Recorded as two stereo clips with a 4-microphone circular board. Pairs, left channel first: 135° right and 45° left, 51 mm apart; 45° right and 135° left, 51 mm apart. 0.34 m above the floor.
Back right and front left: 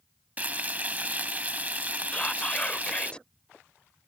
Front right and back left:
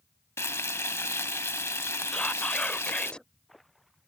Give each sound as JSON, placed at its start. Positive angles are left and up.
{"t": 0.4, "sound": "frying", "azimuth_deg": -15}
{"t": 2.1, "sound": "whispering", "azimuth_deg": -95}